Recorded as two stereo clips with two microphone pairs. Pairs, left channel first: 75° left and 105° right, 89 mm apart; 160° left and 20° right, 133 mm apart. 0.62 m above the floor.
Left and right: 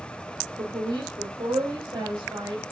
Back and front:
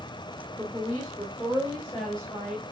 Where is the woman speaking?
95° right, 2 m; by 2.6 s 115° right, 3.5 m.